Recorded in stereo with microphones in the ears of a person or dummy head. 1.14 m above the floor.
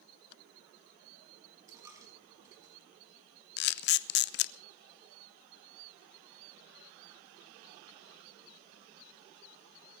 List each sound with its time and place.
1.7 s a dropped coin: 15° right (ahead or behind), 4.5 m
3.6 s a camera shutter: 55° left (ahead or behind), 0.8 m